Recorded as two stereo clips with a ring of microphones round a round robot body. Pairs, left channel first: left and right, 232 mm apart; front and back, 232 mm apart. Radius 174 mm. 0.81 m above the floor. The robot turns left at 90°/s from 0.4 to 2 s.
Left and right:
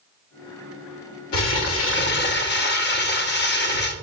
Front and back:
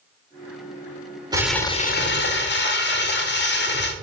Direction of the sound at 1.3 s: 105° left.